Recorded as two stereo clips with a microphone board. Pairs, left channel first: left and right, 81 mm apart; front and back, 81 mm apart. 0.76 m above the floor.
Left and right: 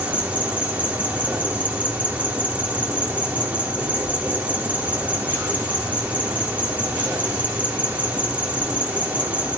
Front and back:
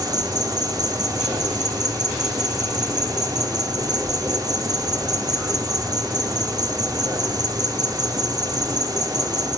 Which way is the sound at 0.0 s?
160° right.